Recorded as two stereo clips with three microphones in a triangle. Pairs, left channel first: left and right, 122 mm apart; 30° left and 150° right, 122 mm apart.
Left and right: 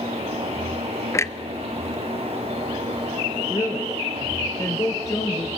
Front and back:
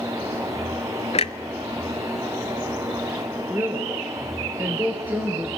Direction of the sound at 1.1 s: 30° left.